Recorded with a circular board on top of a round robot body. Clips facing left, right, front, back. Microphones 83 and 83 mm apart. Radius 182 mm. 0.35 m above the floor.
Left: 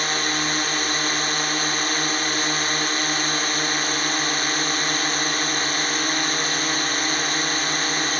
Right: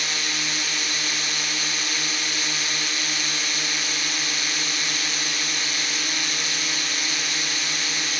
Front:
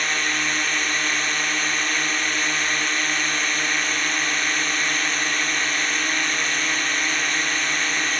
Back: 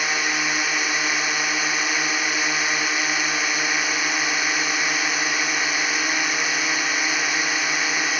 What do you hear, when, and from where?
0.0 s a drone: 100° left